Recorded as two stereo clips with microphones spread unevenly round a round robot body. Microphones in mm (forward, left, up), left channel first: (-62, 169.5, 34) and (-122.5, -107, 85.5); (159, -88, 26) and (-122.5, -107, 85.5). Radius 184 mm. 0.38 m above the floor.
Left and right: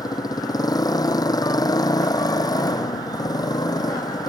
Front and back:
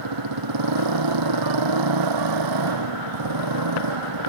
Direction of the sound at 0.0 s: 155° left.